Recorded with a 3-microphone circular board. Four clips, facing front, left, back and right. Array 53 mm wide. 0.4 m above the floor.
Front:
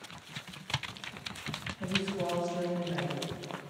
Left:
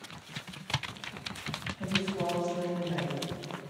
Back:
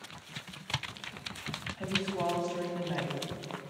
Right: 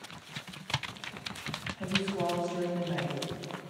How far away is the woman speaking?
About 3.5 m.